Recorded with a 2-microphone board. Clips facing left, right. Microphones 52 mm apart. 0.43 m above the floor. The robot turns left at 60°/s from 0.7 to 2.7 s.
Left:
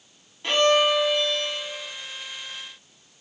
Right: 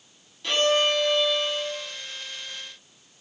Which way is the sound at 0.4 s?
25° left.